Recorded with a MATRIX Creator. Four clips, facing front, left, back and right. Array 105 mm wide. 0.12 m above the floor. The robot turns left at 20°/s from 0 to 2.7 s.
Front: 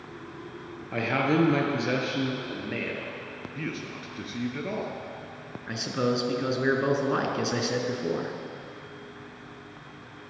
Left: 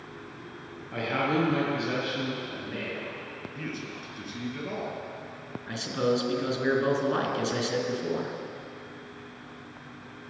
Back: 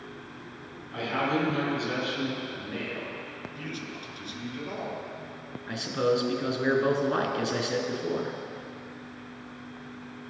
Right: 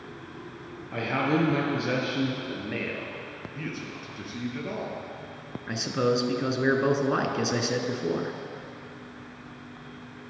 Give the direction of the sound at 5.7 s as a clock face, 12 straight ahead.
2 o'clock.